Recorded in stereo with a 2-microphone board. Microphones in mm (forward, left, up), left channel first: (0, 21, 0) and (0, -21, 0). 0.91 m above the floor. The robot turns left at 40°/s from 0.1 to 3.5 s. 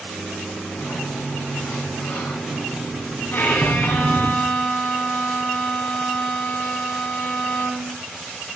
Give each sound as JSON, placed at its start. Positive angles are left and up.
{"t": 0.8, "sound": "a sliding door", "azimuth_deg": 100, "distance_m": 3.5}
{"t": 3.3, "sound": "a violin", "side_deg": 55, "distance_m": 7.5}